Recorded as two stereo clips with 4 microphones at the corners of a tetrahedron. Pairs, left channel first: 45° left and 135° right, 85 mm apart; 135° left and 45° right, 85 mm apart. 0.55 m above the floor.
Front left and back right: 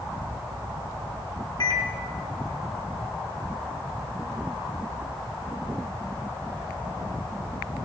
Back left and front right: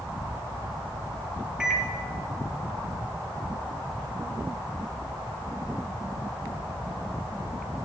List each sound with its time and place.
1.6 s a microwave: 35° left, 1.4 m